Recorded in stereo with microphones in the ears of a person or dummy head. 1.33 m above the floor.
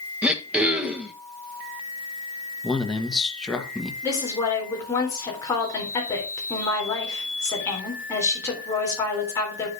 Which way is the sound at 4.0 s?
15° left (ahead or behind).